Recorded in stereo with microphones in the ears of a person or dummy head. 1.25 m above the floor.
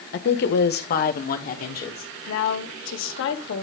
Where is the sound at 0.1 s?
50° left (ahead or behind), 1.1 m; by 2.1 s 45° left (ahead or behind), 2 m.